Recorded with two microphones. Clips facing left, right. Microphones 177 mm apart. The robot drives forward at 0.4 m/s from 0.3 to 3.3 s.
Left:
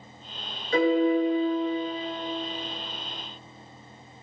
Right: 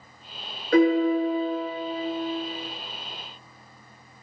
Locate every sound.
0.7 s a piano: 65° right (ahead or behind), 0.6 m; by 2.0 s 40° right (ahead or behind), 0.8 m